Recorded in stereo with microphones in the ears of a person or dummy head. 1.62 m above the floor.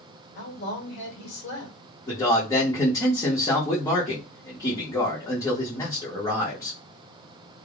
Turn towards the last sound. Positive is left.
turn(degrees=15)  # may be behind; listen again after turning